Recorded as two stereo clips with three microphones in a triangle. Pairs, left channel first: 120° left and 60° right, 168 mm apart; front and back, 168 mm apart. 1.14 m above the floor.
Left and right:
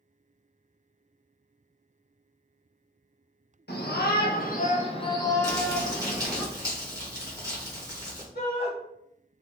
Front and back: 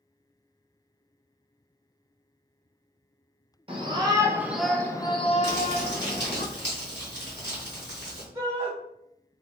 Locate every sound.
3.7 s a shout: 120° left, 0.9 m; by 6.4 s 15° left, 1.0 m
5.4 s crumpling: 10° left, 1.1 m
8.3 s a shout: 120° left, 1.3 m